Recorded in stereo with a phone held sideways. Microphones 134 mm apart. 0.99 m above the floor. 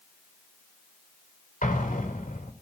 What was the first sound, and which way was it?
An explosion, 75° left (ahead or behind).